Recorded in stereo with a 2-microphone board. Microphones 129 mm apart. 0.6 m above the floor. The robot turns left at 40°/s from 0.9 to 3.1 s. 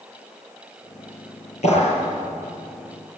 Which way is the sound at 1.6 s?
60° left (ahead or behind).